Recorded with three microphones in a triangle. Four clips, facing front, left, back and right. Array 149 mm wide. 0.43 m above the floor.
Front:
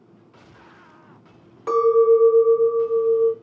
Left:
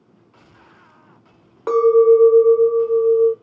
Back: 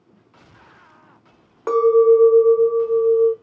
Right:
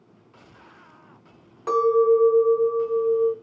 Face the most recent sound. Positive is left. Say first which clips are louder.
# left 6 dB, back 2 dB
turn(degrees=140)